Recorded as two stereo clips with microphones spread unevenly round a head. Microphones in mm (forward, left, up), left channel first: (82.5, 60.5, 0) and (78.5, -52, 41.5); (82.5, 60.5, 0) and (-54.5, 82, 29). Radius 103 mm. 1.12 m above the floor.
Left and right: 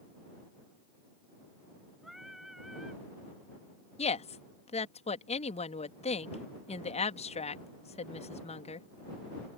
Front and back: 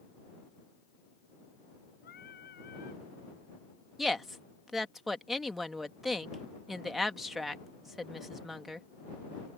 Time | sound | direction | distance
2.0 | singing | 5° right | ?
4.0 | a woman speaking | 80° left | ?